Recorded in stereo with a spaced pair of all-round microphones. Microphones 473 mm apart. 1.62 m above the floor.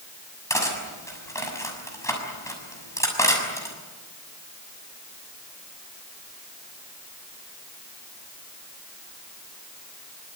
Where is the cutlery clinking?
5° left (ahead or behind), 6.5 m.